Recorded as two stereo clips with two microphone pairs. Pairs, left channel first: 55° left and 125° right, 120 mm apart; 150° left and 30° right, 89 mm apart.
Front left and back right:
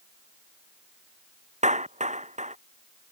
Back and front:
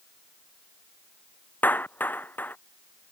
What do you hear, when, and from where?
1.6 s a clap: 140° right